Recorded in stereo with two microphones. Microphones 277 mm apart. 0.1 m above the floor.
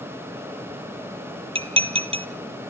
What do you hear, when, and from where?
1.6 s dishes clattering: 20° right (ahead or behind), 1.7 m